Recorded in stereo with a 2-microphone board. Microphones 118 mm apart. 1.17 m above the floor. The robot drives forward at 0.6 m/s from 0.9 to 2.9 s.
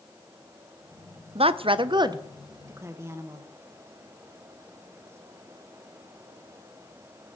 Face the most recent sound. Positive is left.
turn(degrees=-25)  # may be behind; listen again after turning